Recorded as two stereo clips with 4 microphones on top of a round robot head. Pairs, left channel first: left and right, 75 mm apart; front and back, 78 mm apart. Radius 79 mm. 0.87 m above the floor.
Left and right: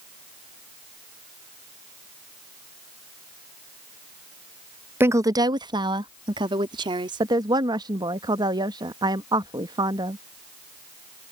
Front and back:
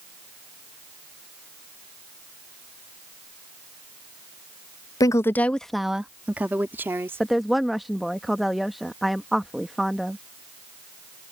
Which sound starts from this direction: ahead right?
A woman speaking, at 5.0 s.